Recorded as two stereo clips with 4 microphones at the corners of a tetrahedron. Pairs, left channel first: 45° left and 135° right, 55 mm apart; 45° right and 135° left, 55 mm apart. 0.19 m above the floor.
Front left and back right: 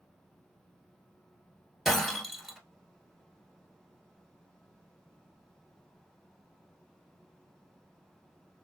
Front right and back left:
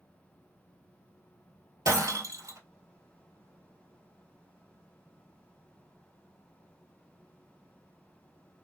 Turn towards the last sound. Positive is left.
turn(degrees=135)